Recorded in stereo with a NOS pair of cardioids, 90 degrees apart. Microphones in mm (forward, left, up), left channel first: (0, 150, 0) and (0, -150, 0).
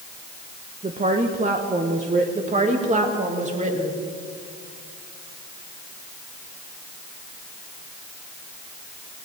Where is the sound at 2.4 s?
25° right, 2.5 m.